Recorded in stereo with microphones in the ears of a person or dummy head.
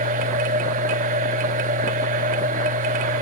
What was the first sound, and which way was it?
A machine running, 35° right (ahead or behind).